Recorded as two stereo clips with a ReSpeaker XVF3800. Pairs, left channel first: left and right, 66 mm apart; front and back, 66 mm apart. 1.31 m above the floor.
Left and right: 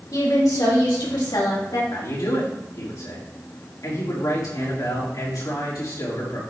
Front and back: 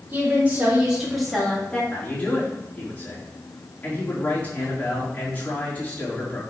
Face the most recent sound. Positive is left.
turn(degrees=65)